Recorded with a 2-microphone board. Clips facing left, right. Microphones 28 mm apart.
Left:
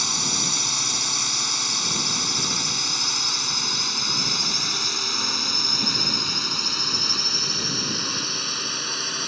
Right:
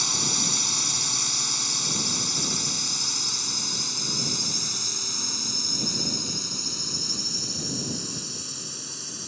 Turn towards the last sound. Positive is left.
turn(degrees=50)  # may be behind; listen again after turning